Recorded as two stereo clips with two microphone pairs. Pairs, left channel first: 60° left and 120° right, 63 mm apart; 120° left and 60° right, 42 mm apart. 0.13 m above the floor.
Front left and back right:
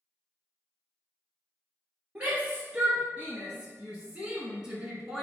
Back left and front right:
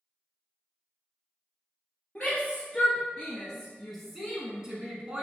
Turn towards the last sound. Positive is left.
turn(degrees=-45)